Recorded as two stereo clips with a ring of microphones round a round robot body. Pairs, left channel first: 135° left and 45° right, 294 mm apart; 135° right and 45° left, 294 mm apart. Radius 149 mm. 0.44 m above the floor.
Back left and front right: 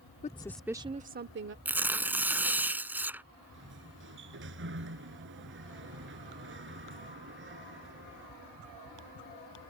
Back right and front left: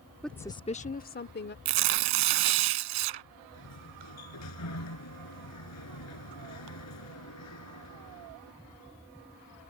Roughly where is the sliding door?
Right.